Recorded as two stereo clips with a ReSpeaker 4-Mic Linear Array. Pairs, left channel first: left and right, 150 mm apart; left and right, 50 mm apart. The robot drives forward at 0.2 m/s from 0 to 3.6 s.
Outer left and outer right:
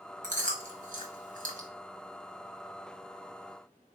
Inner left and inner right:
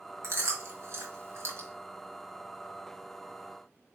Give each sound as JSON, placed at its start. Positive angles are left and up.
{"t": 0.2, "sound": "chewing", "side_deg": -60, "distance_m": 1.2}